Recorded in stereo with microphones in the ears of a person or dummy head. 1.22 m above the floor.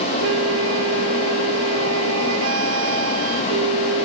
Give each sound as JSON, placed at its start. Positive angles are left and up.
{"t": 0.2, "sound": "a flute", "side_deg": -75}